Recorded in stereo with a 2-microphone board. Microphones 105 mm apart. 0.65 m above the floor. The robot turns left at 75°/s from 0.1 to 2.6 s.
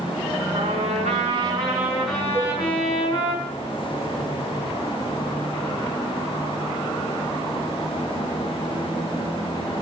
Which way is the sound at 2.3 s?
20° left (ahead or behind).